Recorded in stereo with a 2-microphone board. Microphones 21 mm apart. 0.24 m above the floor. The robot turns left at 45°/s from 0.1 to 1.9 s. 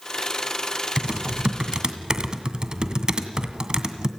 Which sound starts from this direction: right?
Typing on a keyboard, at 1.0 s.